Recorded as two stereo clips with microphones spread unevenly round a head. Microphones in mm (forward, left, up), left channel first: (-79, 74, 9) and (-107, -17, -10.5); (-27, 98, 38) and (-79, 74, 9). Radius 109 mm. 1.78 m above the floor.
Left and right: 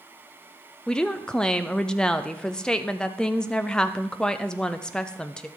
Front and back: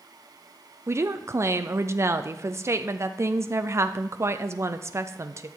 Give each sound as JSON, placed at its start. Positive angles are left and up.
{"t": 0.9, "sound": "a woman speaking", "azimuth_deg": 150, "distance_m": 0.6}